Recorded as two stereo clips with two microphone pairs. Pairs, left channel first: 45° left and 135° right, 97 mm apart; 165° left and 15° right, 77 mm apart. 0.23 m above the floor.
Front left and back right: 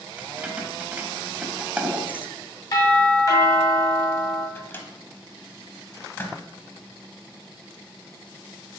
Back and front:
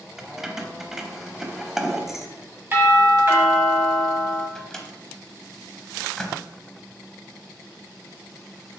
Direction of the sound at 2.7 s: 25° left.